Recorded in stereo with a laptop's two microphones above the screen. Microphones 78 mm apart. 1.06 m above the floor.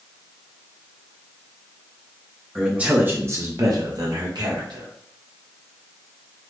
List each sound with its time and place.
2.5 s a man speaking: 5° right (ahead or behind), 0.7 m; by 4.9 s 65° right (ahead or behind), 1.3 m